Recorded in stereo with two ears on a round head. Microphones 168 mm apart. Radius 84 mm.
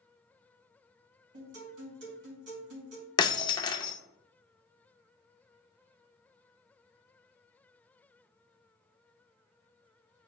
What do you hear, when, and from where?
1.3 s a guitar: 65° right (ahead or behind), 3 m
3.2 s breaking glass: 20° left (ahead or behind), 0.6 m